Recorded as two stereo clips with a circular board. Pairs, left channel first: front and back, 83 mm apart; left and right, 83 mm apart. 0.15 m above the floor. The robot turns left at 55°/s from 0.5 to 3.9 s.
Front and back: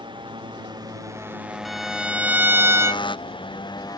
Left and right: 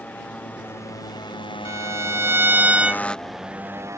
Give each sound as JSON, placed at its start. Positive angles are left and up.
{"t": 0.0, "sound": "a motorcycle", "azimuth_deg": 165}
{"t": 1.6, "sound": "a violin", "azimuth_deg": -90}